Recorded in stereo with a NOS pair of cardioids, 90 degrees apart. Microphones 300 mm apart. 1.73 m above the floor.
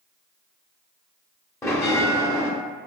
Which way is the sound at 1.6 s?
10° left.